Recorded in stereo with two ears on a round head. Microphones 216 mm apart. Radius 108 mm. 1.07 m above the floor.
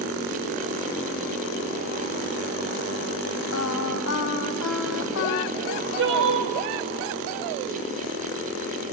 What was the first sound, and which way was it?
Singing, 65° left (ahead or behind).